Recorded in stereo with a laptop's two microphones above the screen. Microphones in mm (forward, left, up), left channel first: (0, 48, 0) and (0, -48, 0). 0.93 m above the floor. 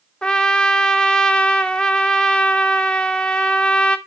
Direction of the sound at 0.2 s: 10° left (ahead or behind).